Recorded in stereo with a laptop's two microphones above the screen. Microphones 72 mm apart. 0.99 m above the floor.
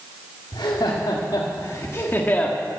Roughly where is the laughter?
Left.